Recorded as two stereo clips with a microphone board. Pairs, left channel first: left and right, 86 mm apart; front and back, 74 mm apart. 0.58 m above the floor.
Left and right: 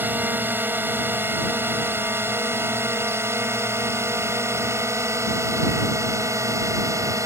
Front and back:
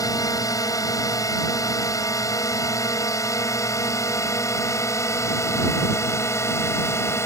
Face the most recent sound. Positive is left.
turn(degrees=-45)